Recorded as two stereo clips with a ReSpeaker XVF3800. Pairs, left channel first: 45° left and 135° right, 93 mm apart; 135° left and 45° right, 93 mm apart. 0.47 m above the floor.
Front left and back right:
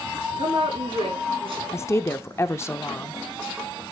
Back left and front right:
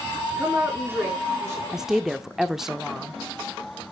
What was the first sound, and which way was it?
A woman speaking, 110° right.